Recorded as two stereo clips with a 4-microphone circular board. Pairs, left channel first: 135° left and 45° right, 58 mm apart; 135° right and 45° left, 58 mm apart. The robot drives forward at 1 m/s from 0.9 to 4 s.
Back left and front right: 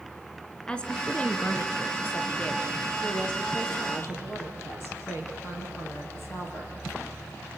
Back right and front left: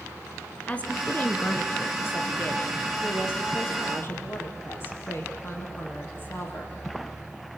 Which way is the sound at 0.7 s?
175° right.